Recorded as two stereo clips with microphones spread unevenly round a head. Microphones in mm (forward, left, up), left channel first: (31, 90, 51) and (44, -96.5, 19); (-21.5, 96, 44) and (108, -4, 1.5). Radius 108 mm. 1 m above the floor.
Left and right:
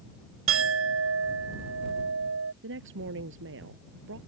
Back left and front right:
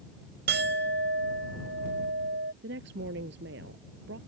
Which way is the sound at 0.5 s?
80° right.